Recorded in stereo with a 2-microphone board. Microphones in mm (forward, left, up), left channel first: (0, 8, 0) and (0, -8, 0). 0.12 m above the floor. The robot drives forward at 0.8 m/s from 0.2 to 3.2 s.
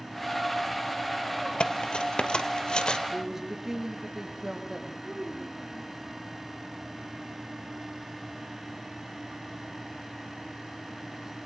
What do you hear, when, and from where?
1.6 s cutlery clinking: 65° left (ahead or behind), 2.0 m; by 3.0 s 55° left (ahead or behind), 2 m
3.1 s a man speaking: 15° right (ahead or behind), 6.5 m
5.0 s a child speaking: 10° right (ahead or behind), 6.5 m